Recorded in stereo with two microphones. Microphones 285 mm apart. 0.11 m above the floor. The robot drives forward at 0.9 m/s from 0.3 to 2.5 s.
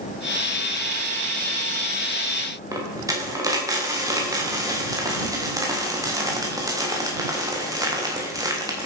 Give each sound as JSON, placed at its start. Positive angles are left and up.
{"t": 2.7, "sound": "a dropped coin", "side_deg": -10, "distance_m": 4.0}